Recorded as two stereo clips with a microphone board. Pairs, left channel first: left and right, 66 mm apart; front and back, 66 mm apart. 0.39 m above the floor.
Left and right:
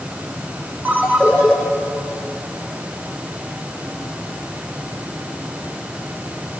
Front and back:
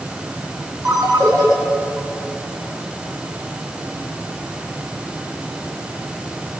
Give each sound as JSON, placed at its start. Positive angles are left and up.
{"t": 0.8, "sound": "a ringtone", "azimuth_deg": -150, "distance_m": 4.0}